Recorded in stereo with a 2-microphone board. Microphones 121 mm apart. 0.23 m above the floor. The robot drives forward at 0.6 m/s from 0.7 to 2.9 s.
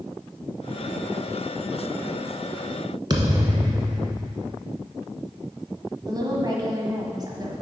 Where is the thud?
35° right (ahead or behind), 1.2 m.